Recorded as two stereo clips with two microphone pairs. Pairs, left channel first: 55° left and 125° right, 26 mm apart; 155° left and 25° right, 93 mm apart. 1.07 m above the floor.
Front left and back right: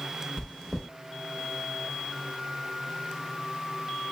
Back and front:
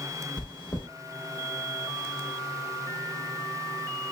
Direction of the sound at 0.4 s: 130° left.